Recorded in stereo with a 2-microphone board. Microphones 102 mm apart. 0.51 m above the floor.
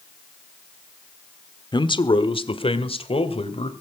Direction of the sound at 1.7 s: 45° left (ahead or behind).